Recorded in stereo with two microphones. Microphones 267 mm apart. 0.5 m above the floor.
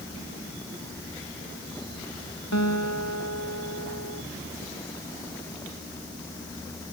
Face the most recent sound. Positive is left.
turn(degrees=90)